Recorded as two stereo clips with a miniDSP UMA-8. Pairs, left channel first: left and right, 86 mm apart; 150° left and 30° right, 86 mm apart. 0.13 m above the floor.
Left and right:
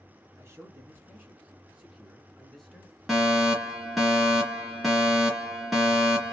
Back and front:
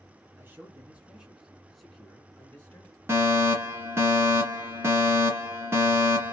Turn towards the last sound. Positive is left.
turn(degrees=0)